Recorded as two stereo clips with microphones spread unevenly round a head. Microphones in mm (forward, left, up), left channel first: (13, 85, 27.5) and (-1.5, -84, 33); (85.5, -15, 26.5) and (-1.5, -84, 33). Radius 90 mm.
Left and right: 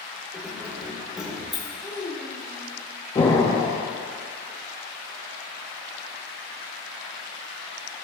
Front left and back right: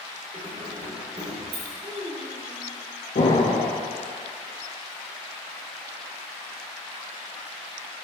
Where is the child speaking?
165° left, 1.7 m.